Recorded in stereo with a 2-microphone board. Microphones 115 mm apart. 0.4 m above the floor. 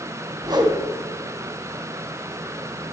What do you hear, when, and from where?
0.4 s a whoosh: 35° right (ahead or behind), 1.9 m